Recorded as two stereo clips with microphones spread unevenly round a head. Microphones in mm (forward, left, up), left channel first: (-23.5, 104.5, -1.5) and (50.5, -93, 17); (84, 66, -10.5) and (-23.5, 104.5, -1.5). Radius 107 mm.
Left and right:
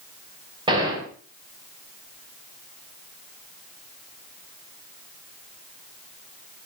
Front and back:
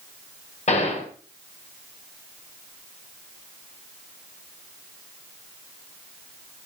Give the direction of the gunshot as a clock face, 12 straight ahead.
12 o'clock.